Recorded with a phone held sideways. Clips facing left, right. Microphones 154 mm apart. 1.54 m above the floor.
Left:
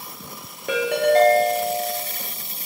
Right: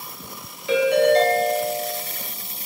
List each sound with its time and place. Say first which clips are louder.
0.7 s a ringtone: right 2 dB; 55° left (ahead or behind), 0.8 m